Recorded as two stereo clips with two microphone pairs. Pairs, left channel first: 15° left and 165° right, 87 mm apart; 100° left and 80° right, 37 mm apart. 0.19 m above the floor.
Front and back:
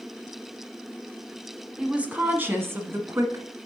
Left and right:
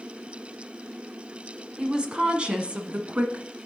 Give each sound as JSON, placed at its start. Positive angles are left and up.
{"t": 1.8, "sound": "a woman speaking", "azimuth_deg": -100, "distance_m": 1.0}